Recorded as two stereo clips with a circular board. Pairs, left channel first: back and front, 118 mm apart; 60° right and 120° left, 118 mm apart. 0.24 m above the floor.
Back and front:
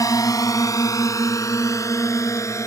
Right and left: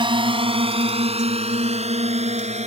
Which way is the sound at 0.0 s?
135° left.